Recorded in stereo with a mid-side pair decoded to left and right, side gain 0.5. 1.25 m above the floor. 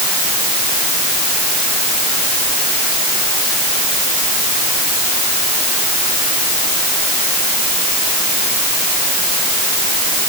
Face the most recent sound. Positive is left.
No sound to turn to.